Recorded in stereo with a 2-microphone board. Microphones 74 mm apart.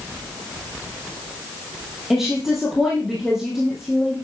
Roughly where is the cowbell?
I don't hear a cowbell.